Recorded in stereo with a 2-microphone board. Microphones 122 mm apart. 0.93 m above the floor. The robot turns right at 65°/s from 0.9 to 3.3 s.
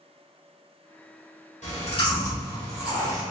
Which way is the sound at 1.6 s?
105° left.